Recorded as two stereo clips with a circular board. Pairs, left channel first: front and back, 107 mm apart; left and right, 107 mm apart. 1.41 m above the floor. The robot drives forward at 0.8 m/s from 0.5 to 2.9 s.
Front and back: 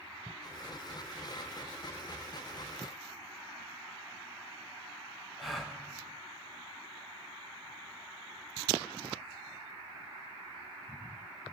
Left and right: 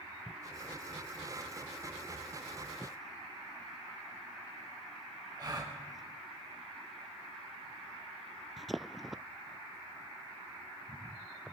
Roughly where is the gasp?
Right.